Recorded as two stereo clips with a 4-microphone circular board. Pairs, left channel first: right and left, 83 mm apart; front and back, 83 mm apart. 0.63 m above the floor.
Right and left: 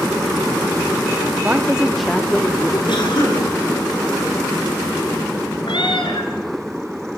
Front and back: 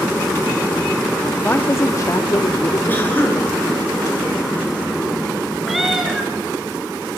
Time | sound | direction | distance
1.4 | a woman speaking | 40° left | 1.1 m
2.9 | a cough | 65° right | 8 m
5.7 | a cat meowing | 95° right | 4 m